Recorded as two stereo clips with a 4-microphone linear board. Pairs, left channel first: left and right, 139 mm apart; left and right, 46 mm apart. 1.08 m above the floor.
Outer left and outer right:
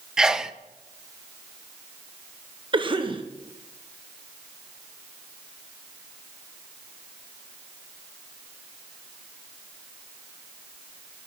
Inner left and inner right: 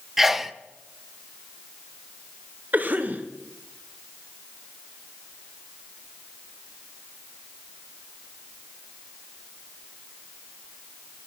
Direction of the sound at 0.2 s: 5° right (ahead or behind).